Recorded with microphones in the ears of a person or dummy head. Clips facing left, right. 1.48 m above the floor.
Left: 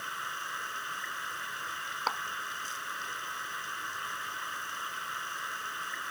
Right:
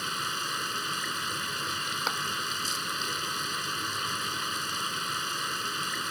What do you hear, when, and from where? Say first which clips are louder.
0.0 s running water: right 6 dB; 50° right (ahead or behind)
2.1 s a clap: left 1 dB; 20° right (ahead or behind)